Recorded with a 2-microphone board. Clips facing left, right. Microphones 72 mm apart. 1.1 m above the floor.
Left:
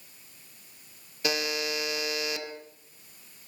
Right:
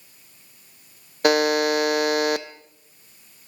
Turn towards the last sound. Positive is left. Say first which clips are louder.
# right 12 dB
turn(degrees=-55)  # may be behind; listen again after turning